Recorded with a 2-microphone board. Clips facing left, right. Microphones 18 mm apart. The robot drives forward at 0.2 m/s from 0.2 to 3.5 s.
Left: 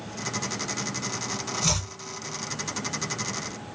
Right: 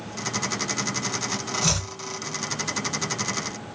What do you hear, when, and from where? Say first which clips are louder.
1.6 s chopping: right 1 dB; 5° right (ahead or behind), 0.8 m